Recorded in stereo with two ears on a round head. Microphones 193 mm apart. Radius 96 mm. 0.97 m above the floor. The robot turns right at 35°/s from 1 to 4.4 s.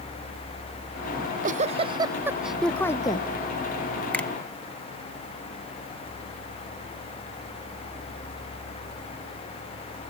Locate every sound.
1.2 s a giggle: 50° right; by 3.3 s 25° left
4.1 s a finger snap: 5° left (ahead or behind); by 4.3 s 10° left (ahead or behind)